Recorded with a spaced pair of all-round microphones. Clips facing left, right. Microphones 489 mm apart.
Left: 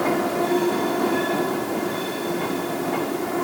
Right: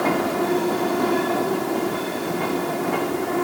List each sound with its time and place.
Only background noise.